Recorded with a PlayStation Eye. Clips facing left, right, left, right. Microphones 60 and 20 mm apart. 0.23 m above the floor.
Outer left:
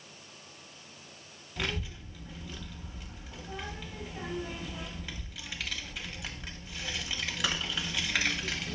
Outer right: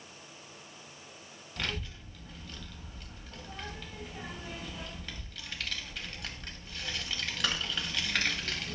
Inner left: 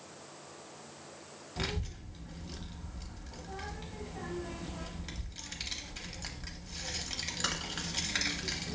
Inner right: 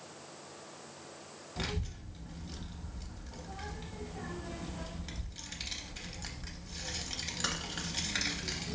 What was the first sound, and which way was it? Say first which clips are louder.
A child speaking: outer left 2 dB, inner left 1 dB; 5° left (ahead or behind).